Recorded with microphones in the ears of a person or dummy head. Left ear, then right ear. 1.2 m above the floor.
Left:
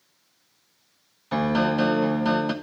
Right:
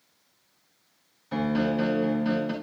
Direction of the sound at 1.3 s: 35° left (ahead or behind).